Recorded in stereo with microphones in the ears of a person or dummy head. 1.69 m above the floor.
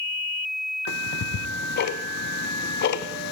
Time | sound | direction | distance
0.9 | ticking | 60° left (ahead or behind) | 0.6 m